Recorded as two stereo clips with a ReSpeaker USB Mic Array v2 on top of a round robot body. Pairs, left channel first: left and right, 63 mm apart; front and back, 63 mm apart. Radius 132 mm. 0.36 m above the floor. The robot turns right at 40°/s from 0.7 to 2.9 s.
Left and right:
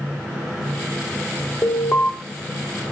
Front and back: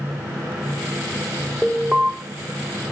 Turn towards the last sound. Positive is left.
turn(degrees=150)